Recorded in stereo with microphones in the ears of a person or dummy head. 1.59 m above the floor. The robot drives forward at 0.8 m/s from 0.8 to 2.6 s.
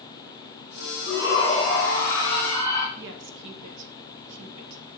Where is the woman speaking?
75° right (ahead or behind), 1.5 m.